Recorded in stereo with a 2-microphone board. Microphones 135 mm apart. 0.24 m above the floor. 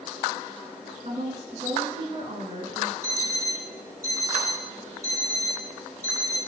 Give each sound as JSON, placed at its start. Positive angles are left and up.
{"t": 1.1, "sound": "a woman speaking", "side_deg": -55, "distance_m": 2.0}
{"t": 3.0, "sound": "an alarm clock", "side_deg": -25, "distance_m": 4.0}